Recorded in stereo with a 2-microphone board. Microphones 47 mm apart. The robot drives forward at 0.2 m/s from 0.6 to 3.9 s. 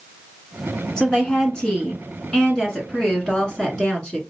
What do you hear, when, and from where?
1.0 s a woman speaking: 20° left (ahead or behind), 1.4 m; by 4.2 s 15° left (ahead or behind), 1.6 m